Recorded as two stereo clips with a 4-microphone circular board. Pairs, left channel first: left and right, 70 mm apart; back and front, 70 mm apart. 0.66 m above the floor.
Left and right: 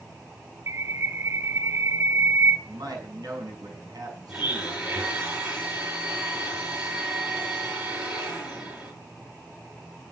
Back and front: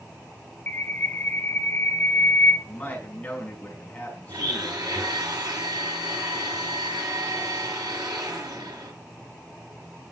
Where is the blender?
15° right, 7 m.